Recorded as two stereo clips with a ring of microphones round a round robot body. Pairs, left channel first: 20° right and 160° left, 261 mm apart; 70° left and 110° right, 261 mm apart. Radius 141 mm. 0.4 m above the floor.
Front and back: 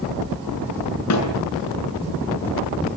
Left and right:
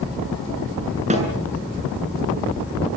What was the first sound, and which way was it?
A snare drum, 45° right.